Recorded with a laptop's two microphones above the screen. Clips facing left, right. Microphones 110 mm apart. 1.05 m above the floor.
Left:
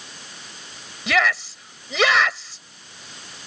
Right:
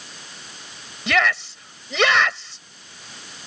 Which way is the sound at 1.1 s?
Centre (ahead or behind).